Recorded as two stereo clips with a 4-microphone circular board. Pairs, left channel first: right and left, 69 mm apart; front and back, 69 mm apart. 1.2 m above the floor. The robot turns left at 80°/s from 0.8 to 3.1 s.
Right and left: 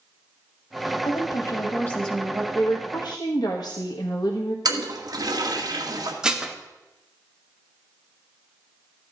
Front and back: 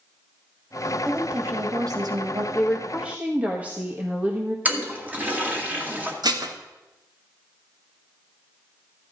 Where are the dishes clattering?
170° left, 1.2 m.